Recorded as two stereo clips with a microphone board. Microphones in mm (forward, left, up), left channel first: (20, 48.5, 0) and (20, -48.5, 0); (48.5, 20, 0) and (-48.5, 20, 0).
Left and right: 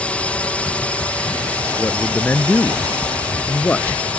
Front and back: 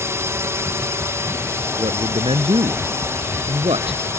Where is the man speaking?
165° left.